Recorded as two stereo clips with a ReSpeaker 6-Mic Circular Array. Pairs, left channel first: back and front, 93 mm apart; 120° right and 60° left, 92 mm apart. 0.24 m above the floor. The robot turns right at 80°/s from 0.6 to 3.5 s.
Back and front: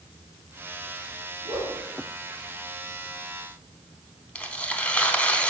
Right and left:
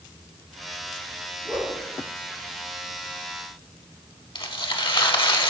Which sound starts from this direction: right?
Tearing paper, at 4.3 s.